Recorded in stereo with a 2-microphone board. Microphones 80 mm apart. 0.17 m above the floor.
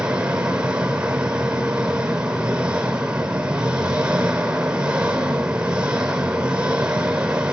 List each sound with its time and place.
0.0 s an engine running: 10° right (ahead or behind), 2.5 m